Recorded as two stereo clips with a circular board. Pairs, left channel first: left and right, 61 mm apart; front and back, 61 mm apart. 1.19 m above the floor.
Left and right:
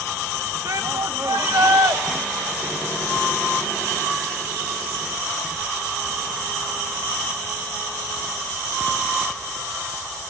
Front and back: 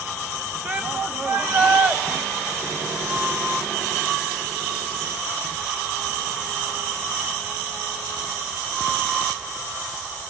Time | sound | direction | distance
0.7 | a shout | 110° right | 1.3 m